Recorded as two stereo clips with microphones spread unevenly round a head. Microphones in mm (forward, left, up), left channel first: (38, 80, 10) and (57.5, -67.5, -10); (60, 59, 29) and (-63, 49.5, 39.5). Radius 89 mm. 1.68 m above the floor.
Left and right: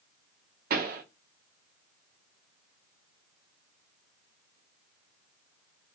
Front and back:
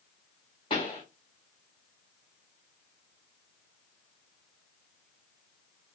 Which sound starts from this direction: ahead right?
A pop, at 0.7 s.